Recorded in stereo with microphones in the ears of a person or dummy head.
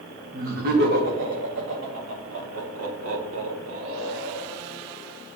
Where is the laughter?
60° right (ahead or behind), 2 m; by 4.6 s 65° right (ahead or behind), 4 m.